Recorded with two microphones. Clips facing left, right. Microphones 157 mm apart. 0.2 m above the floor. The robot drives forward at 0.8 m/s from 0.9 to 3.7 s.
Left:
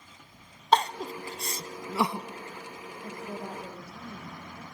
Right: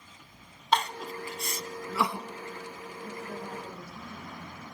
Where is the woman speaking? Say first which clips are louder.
Left 1 dB; 65° left (ahead or behind), 8 m; by 4.6 s 70° left (ahead or behind), 7.5 m.